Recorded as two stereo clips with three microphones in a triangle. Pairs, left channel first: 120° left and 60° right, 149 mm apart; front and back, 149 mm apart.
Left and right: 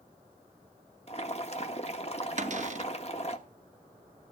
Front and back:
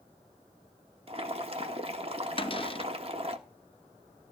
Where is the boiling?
145° left, 1.2 m.